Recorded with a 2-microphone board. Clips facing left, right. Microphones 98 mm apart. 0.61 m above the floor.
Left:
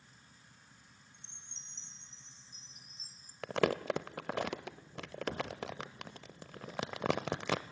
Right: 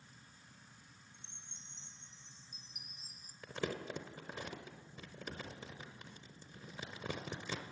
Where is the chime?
15° right (ahead or behind), 1.4 m.